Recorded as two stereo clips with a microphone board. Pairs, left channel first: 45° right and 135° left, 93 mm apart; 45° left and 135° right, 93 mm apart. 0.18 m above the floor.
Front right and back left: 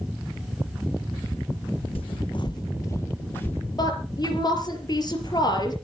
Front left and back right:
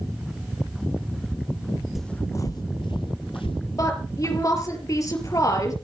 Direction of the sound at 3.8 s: 5° right.